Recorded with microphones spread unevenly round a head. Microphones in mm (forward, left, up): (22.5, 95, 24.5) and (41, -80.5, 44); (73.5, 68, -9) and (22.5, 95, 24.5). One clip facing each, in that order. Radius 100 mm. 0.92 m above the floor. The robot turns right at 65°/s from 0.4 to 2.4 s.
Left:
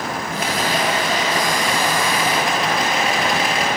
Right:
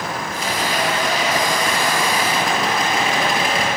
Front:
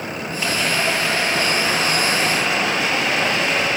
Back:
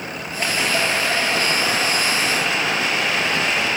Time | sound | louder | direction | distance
0.3 | a rattle | left 2 dB, back 1 dB | 140° left | 7 m